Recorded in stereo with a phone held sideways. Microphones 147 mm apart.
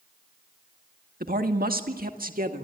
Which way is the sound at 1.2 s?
80° right.